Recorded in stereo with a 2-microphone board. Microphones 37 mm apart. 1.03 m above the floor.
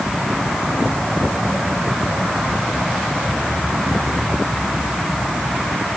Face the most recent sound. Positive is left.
No sound to turn to.